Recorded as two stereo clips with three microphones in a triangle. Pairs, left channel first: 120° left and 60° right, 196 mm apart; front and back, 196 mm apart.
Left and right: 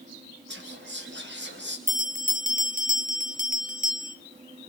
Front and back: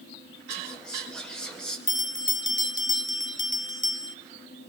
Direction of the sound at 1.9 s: 10° right.